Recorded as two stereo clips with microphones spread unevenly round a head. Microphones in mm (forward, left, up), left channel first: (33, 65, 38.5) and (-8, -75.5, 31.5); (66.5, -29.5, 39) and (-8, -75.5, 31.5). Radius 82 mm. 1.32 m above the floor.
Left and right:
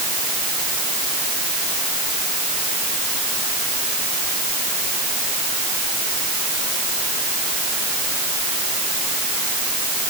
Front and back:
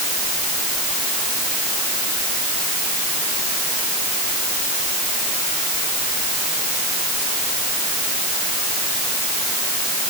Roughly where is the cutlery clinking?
I don't hear cutlery clinking.